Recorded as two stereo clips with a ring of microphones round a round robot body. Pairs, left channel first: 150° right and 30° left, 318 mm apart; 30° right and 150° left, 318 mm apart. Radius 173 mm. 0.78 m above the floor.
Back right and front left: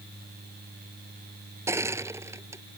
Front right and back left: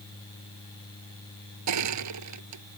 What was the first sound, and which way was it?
Crushing, 110° left.